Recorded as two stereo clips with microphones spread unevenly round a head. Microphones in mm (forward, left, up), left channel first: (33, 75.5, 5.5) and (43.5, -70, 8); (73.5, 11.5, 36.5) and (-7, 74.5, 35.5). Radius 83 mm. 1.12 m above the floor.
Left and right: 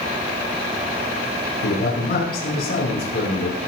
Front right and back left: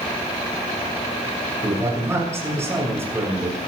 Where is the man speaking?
80° left, 7.5 m.